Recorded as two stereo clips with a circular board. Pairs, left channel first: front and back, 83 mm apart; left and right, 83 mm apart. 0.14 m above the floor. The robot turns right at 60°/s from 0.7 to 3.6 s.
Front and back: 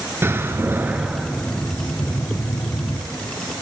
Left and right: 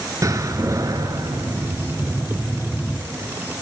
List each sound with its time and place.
0.2 s a door slam: 125° right, 1.2 m; by 3.0 s 10° left, 1.2 m